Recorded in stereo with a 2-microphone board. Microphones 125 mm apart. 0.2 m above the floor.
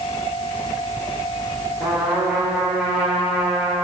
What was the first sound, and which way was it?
A trumpet, 5° right (ahead or behind).